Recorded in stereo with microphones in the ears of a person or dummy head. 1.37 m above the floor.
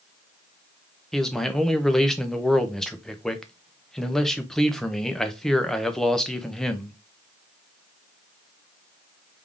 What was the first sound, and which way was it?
A man speaking, centre (ahead or behind).